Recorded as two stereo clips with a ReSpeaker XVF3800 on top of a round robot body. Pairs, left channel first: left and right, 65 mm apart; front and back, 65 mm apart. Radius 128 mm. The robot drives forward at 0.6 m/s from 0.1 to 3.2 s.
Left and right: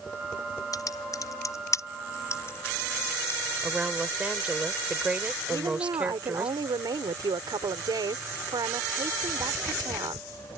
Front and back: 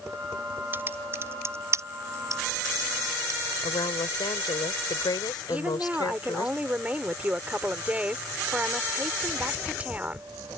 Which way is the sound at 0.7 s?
120° left.